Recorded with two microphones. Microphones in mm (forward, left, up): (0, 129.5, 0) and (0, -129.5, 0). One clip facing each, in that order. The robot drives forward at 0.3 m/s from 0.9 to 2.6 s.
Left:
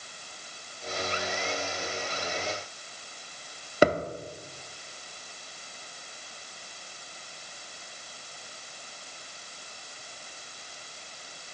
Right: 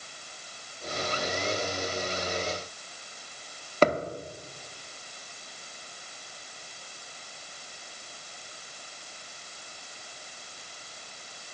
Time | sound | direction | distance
3.8 | a thud | 10° left (ahead or behind) | 0.6 m